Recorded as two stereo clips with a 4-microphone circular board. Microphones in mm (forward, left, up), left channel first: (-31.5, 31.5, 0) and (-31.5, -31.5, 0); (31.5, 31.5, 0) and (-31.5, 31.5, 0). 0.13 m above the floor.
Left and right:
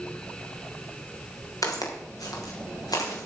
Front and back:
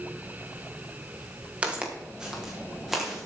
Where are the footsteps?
110° left, 3.5 m; by 3.3 s 95° left, 5.5 m.